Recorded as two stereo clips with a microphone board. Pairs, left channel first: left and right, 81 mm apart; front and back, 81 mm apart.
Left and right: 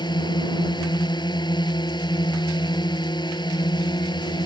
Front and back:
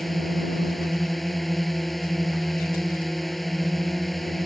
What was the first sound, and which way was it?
A drone, 90° left.